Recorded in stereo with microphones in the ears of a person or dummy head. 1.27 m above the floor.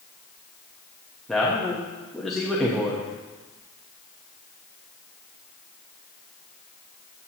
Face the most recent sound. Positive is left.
turn(degrees=0)  # may be behind; listen again after turning